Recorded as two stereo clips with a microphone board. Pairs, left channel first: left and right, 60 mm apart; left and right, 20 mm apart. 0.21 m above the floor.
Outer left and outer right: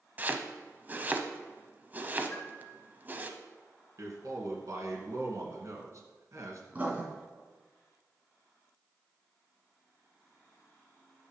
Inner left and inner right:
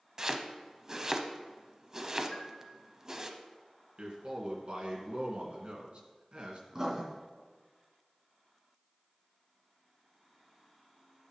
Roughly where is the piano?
Left.